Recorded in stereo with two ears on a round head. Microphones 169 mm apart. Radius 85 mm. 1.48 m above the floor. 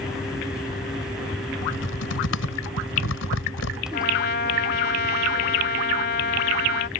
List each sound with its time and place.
1.6 s typing on a keyboard: 80° left
3.9 s a trumpet: 60° left (ahead or behind)